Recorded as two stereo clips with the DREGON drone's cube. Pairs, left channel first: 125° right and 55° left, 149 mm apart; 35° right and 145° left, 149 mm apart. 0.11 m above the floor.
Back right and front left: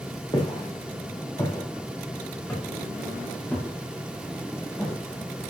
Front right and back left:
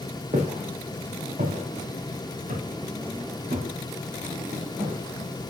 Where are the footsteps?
Straight behind, 4 m; by 5.5 s 150° left, 7 m.